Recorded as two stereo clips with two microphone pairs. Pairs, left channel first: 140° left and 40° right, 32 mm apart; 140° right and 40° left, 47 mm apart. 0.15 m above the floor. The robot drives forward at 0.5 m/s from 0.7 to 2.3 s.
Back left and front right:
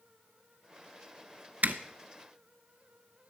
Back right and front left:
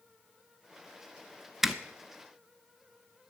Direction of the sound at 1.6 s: 45° right.